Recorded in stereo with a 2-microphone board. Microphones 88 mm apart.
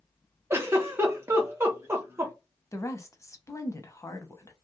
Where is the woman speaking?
35° left (ahead or behind), 0.8 m.